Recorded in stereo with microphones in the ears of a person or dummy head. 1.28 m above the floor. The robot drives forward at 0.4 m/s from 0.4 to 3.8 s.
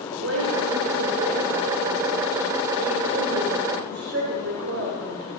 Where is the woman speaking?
75° right (ahead or behind), 4.5 m; by 5.3 s 60° right (ahead or behind), 5 m.